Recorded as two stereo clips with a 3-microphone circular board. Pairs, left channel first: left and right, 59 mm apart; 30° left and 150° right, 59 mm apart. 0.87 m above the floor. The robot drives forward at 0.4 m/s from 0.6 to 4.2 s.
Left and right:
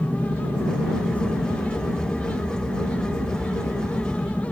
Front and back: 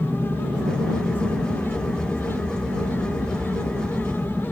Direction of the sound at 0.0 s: 110° left.